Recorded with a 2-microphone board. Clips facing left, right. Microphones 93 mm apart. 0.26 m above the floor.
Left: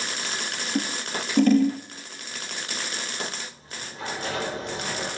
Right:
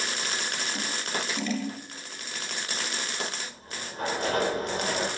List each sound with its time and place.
0.8 s scissors: 50° left (ahead or behind), 2 m
3.5 s a sliding door: 40° right (ahead or behind), 5 m